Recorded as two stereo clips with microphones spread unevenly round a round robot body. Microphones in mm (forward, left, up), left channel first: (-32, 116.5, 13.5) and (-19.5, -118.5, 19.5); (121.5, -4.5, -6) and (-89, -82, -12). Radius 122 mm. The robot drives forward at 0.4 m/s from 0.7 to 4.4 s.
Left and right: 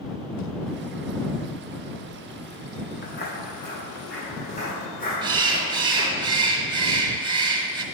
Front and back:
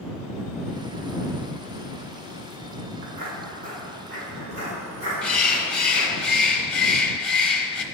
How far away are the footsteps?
About 1.9 m.